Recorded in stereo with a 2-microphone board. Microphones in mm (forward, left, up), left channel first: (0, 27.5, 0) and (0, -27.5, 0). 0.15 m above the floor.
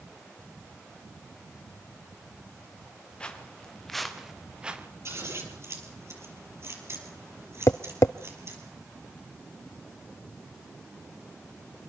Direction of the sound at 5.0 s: 50° right (ahead or behind).